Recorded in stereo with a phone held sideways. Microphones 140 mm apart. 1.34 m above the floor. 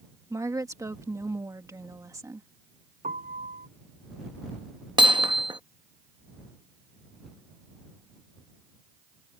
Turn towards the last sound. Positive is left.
turn(degrees=-35)  # may be behind; listen again after turning